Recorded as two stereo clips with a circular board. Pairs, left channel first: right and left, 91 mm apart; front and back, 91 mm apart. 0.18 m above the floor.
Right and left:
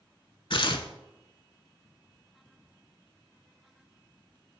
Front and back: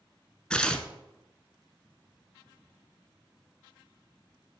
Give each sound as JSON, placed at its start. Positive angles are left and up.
{"t": 0.5, "sound": "tearing paper", "azimuth_deg": -80, "distance_m": 0.5}